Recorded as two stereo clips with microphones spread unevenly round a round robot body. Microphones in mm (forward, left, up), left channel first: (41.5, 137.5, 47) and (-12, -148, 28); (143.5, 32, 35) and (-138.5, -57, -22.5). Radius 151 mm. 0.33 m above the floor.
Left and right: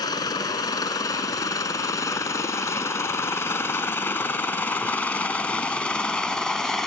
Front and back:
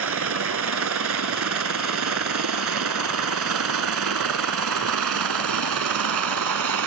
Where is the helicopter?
155° left; by 6.9 s 170° left.